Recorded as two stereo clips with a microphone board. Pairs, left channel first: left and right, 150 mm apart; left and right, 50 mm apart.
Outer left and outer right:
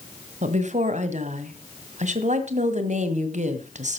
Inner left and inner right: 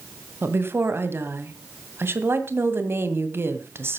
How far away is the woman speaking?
About 1.9 m.